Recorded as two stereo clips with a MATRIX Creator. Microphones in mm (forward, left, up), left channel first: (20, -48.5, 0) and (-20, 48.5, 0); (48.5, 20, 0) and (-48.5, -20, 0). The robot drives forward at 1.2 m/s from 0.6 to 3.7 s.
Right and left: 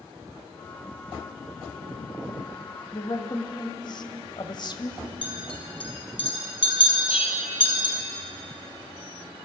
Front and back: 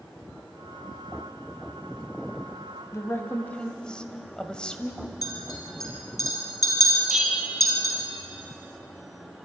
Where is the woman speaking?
35° right, 2.5 m; by 5.0 s 55° right, 1.8 m.